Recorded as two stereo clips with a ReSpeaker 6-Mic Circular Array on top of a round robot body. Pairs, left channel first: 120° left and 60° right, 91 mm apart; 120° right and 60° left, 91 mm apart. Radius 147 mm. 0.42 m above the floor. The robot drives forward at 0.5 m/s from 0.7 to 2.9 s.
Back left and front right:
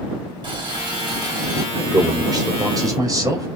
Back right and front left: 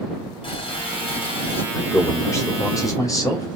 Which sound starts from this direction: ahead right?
A man speaking, at 1.7 s.